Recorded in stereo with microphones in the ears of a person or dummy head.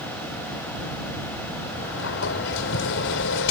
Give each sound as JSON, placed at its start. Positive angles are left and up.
{"t": 1.7, "sound": "a sliding door", "side_deg": 65}